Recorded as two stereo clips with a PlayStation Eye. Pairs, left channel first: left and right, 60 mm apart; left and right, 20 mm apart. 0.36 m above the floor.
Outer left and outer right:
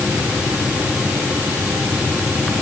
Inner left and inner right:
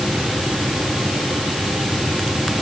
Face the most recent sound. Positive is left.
No sound to turn to.